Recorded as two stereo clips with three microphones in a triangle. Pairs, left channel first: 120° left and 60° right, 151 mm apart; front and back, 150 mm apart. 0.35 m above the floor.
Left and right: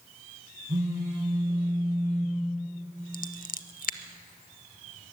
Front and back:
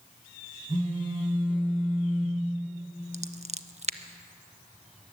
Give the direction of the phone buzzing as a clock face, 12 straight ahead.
4 o'clock.